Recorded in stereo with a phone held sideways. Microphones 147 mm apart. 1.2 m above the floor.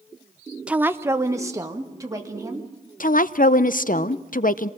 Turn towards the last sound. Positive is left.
turn(degrees=70)  # may be behind; listen again after turning